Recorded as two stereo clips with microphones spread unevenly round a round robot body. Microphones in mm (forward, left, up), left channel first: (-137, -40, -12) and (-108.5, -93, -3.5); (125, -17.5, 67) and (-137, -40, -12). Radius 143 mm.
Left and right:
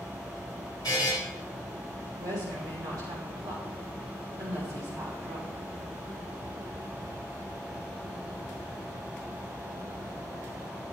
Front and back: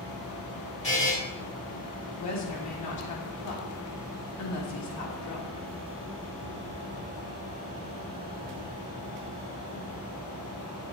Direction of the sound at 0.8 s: 75° left.